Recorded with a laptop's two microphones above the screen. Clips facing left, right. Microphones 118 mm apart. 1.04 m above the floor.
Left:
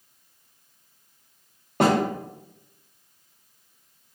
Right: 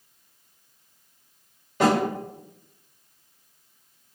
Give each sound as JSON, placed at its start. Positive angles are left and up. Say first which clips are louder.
{"t": 1.8, "sound": "a snare drum", "louder": "even", "side_deg": 55, "distance_m": 1.4}